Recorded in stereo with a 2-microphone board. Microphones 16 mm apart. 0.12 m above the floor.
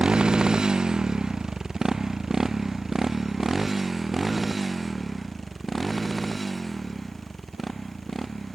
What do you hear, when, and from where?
0.0 s a motorcycle: 65° right (ahead or behind); by 8.6 s 15° left (ahead or behind)